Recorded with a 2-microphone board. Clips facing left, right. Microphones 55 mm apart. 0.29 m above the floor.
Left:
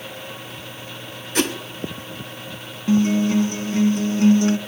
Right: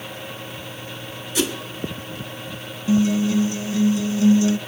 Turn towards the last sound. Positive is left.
turn(degrees=45)  # may be behind; listen again after turning